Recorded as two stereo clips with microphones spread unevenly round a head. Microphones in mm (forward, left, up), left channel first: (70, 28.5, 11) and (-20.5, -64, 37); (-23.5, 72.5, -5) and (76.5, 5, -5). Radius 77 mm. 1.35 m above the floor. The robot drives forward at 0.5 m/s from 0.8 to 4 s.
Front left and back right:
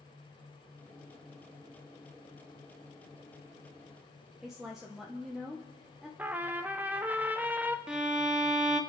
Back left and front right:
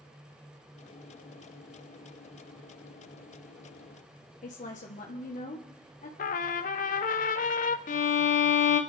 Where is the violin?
140° left, 0.9 m.